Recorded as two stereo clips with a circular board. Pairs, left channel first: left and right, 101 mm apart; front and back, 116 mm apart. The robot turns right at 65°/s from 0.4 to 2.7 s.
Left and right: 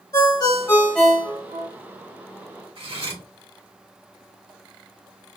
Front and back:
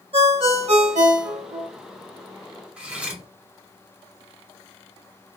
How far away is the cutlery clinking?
About 1.1 m.